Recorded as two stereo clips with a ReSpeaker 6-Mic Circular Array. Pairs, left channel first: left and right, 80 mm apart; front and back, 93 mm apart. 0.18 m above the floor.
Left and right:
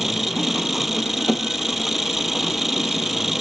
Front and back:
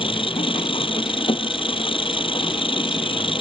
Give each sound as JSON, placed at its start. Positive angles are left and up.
{"t": 0.0, "sound": "an engine running", "azimuth_deg": -5}